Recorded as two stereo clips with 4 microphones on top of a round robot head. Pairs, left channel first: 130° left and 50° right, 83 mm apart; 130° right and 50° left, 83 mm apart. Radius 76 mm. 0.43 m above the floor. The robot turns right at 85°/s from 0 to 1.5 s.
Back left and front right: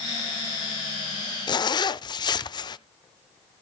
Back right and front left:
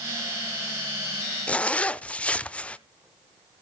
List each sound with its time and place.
1.5 s a zipper: 155° left, 0.6 m